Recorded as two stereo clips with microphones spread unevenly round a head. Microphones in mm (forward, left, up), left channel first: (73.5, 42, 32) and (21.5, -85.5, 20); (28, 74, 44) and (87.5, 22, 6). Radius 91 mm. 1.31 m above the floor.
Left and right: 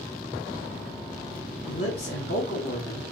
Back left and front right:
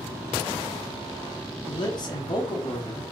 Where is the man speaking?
105° left, 1.2 m.